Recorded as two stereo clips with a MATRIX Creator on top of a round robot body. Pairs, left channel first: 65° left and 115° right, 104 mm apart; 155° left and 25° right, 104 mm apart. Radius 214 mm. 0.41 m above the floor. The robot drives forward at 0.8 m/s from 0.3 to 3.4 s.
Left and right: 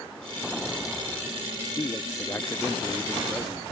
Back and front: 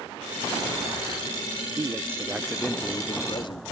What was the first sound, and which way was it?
A man speaking, 20° left.